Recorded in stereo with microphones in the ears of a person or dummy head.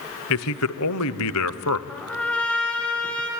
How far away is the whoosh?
I don't hear a whoosh.